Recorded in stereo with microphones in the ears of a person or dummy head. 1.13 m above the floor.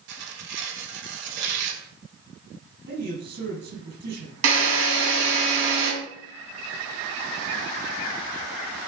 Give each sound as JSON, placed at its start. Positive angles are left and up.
{"t": 0.1, "sound": "tearing paper", "side_deg": -65, "distance_m": 3.5}
{"t": 2.9, "sound": "a man speaking", "side_deg": -60, "distance_m": 7.5}
{"t": 4.4, "sound": "a drill", "side_deg": -75, "distance_m": 6.5}